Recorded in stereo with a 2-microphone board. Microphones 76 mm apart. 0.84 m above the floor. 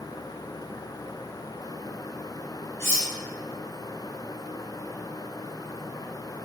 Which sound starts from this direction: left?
Cutlery clinking, at 2.8 s.